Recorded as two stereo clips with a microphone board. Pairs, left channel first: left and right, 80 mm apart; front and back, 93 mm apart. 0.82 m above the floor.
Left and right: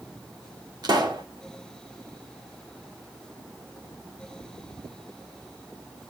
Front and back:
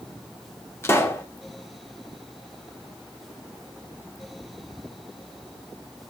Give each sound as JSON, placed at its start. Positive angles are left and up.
{"t": 0.8, "sound": "a pop", "azimuth_deg": -60, "distance_m": 2.5}